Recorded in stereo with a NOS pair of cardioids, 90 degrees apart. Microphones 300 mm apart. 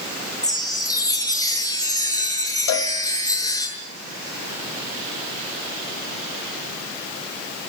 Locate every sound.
0.4 s a chime: 10° left, 6.5 m
2.7 s a cowbell: 65° left, 2.5 m